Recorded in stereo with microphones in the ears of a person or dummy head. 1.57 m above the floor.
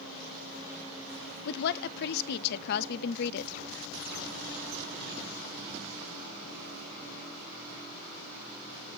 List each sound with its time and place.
1.4 s a woman speaking: 55° left (ahead or behind), 0.5 m